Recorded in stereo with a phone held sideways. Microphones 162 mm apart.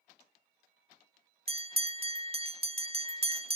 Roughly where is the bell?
Right.